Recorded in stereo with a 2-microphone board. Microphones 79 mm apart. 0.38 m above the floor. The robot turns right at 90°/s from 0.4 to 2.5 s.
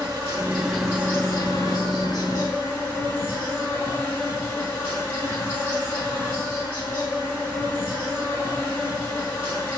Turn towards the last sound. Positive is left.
turn(degrees=150)